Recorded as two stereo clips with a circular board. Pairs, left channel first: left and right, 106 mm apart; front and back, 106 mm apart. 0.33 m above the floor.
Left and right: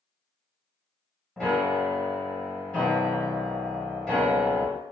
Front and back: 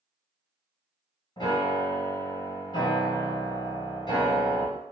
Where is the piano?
10° left, 1.5 m.